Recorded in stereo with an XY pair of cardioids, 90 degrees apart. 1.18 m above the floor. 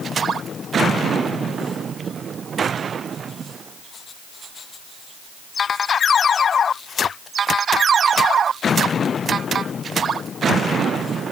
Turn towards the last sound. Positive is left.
No sound to turn to.